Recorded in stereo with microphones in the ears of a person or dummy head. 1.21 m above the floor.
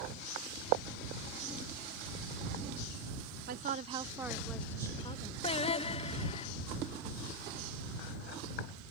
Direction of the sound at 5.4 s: 30° left (ahead or behind).